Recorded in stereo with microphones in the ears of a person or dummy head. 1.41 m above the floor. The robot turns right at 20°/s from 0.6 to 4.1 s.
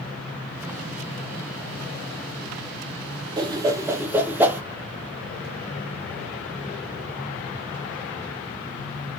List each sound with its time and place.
3.4 s a whoosh: 25° right (ahead or behind), 0.8 m; by 4.6 s 15° right (ahead or behind), 0.8 m